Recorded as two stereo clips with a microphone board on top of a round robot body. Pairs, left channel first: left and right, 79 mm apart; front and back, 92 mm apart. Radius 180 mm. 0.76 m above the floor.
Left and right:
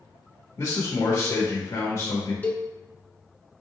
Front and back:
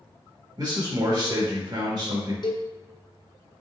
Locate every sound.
0.6 s a man speaking: 140° left, 1.3 m
2.4 s a cowbell: 20° left, 1.0 m